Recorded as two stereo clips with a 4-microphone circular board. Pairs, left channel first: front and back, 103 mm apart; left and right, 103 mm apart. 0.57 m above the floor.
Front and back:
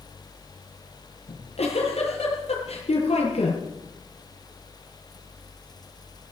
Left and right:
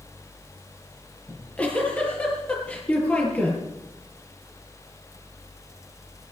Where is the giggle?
15° left, 9 m.